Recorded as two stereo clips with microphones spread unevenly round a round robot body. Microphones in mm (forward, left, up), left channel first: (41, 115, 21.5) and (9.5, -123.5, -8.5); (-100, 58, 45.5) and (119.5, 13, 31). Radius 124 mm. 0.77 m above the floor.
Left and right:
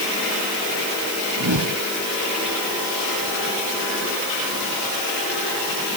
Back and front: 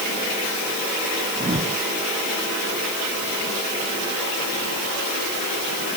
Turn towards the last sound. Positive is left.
turn(degrees=-75)